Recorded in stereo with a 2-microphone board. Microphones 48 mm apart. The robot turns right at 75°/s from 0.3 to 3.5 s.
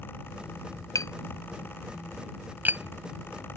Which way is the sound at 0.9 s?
85° left.